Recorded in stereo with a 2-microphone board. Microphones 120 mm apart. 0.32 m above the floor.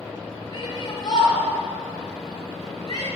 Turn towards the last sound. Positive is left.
turn(degrees=35)  # may be behind; listen again after turning